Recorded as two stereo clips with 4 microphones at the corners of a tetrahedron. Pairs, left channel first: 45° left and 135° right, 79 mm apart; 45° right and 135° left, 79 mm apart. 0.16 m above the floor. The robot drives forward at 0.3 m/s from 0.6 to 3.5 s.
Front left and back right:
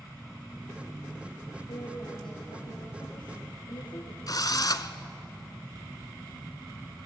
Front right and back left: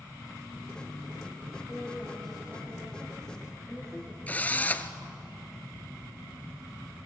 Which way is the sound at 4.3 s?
20° left.